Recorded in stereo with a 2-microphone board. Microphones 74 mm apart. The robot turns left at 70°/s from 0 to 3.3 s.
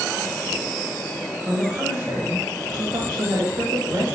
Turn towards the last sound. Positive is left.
turn(degrees=-135)